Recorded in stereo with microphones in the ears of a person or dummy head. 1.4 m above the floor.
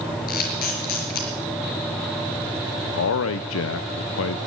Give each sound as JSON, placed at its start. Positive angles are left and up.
{"t": 0.3, "sound": "a camera shutter", "side_deg": 55, "distance_m": 5.0}
{"t": 3.0, "sound": "a man speaking", "side_deg": 75, "distance_m": 0.7}